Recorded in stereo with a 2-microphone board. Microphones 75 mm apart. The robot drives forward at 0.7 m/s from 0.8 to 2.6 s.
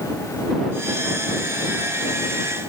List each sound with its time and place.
Only background noise.